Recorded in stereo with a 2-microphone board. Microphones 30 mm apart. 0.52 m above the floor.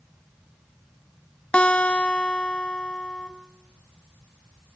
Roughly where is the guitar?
Left.